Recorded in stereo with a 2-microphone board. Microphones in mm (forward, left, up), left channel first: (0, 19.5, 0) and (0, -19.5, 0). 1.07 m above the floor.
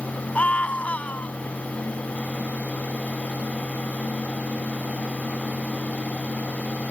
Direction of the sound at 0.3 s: 35° left (ahead or behind).